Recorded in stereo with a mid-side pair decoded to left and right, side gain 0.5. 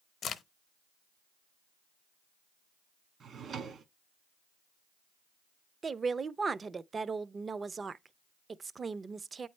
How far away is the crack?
About 0.7 m.